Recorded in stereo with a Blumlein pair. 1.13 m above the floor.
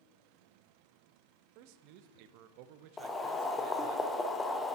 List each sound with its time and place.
1.6 s a man speaking: 45° right, 0.6 m
3.0 s boiling: 15° left, 0.8 m